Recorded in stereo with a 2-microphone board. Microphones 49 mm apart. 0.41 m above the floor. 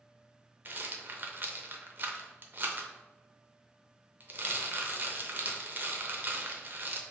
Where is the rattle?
45° right (ahead or behind), 0.6 m.